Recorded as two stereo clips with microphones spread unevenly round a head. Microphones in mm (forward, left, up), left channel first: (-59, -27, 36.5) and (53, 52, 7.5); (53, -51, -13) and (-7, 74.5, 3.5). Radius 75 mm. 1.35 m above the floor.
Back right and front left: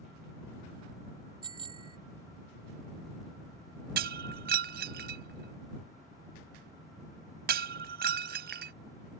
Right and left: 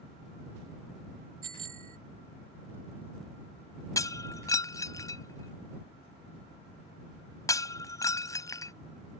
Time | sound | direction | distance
1.4 | a bicycle bell | 95° left | ?
4.0 | breaking glass | 5° left | ?